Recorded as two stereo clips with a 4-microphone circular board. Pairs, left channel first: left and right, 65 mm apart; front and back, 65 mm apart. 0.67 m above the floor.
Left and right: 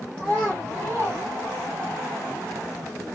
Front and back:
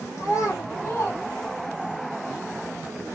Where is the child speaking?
35° right, 1.2 m; by 2.0 s 145° right, 0.6 m.